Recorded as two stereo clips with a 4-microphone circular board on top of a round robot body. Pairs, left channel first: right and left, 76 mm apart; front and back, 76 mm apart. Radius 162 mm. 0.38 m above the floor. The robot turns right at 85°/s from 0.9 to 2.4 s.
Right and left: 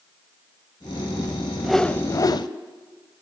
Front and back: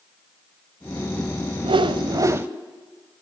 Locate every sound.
1.6 s a whoosh: 175° left, 0.9 m; by 2.5 s 120° right, 0.9 m